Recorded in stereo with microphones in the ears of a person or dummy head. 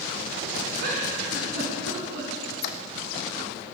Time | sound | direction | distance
0.8 | a giggle | 65° right (ahead or behind) | 3 m
2.4 | a squeak | 55° left (ahead or behind) | 0.6 m